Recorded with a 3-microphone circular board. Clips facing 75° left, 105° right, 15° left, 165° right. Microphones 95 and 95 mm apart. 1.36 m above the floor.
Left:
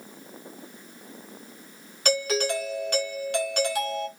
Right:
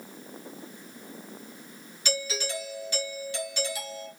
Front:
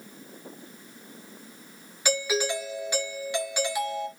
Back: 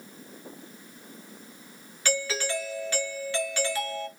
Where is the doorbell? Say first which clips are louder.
Left 8 dB, front 3 dB; 85° left, 2.0 m.